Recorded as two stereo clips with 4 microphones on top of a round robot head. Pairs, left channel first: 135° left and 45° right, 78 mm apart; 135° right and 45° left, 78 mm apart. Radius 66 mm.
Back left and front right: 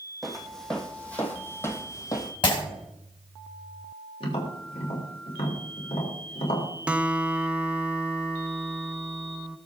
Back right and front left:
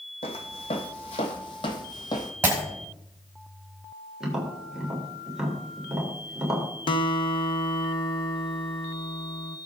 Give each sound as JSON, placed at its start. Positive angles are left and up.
{"t": 0.2, "sound": "footsteps", "azimuth_deg": -135, "distance_m": 2.0}
{"t": 2.4, "sound": "breaking glass", "azimuth_deg": 110, "distance_m": 4.5}
{"t": 4.2, "sound": "tapping", "azimuth_deg": 130, "distance_m": 3.5}
{"t": 6.9, "sound": "a guitar", "azimuth_deg": -120, "distance_m": 0.9}